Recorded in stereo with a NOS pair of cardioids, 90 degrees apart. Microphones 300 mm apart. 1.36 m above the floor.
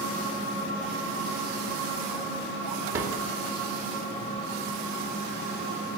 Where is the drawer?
45° right, 2.5 m.